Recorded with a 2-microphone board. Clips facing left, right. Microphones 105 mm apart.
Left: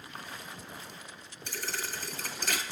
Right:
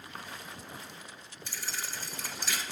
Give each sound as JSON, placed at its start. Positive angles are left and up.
{"t": 1.5, "sound": "a thud", "side_deg": 60, "distance_m": 0.8}